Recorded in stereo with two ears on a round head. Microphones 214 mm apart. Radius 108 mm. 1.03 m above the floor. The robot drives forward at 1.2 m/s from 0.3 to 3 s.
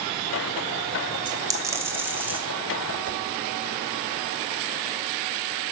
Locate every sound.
1.3 s a dropped coin: 20° right (ahead or behind), 1.0 m; by 2.4 s 10° right (ahead or behind), 2.5 m
3.0 s a whoosh: 50° right (ahead or behind), 2 m